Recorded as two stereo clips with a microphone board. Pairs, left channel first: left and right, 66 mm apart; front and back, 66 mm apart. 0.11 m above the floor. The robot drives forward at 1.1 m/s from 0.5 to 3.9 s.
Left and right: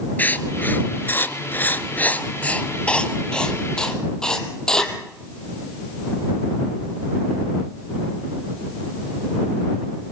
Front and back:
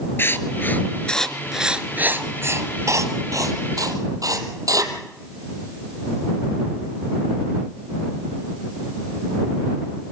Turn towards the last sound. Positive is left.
turn(degrees=165)